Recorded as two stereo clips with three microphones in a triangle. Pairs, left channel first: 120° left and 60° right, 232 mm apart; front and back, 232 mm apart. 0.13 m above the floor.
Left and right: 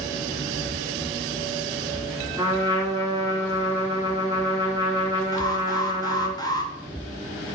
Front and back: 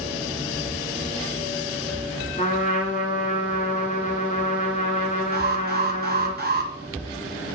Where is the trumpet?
Straight ahead, 1.8 m.